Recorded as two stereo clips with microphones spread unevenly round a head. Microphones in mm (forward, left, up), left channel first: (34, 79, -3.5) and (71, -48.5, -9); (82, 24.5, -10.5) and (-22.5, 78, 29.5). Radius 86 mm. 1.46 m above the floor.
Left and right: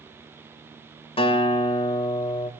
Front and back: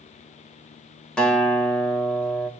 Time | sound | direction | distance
1.2 | a guitar | 60° left | 3 m